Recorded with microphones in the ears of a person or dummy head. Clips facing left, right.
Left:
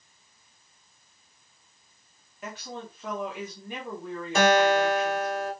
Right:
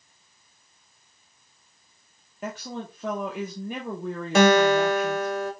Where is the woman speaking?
45° right (ahead or behind), 0.8 m.